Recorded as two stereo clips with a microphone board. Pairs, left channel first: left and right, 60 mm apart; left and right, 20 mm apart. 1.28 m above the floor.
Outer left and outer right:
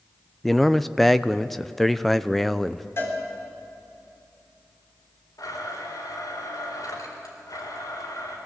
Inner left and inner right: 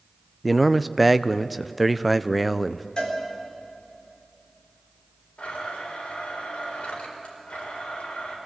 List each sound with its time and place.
0.4 s a man speaking: centre (ahead or behind), 0.5 m
3.0 s a cowbell: 45° left (ahead or behind), 4 m
5.4 s a blender: 85° left, 4 m